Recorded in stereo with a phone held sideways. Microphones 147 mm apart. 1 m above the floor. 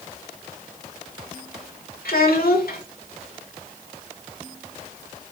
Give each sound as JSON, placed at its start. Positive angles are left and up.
{"t": 2.0, "sound": "a child speaking", "side_deg": 80, "distance_m": 1.6}